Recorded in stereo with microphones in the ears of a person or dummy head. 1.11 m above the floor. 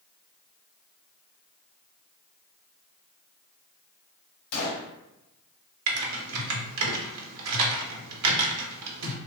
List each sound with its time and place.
4.5 s a gunshot: 55° left (ahead or behind), 1.0 m
5.9 s typing on a keyboard: 80° right, 0.6 m